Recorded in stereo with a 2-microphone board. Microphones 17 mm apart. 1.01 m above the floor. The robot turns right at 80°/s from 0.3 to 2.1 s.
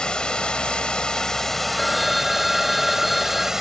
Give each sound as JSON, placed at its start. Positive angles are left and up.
{"t": 0.0, "sound": "running water", "azimuth_deg": 65}
{"t": 1.8, "sound": "a phone ringing", "side_deg": 30}